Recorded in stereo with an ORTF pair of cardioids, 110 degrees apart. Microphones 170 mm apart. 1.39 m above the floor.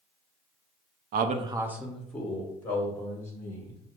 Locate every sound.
1.1 s a man speaking: 70° right, 0.6 m; by 3.8 s 20° left, 4 m